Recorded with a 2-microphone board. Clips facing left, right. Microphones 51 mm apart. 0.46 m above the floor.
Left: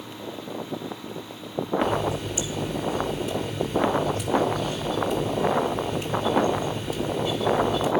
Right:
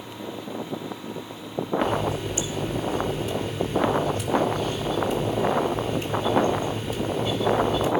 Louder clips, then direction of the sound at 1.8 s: Even; centre (ahead or behind).